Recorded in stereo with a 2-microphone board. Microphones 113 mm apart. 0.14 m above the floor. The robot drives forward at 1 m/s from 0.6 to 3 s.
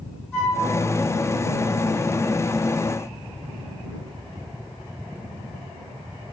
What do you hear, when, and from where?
0.3 s a flute: 20° left (ahead or behind), 1.8 m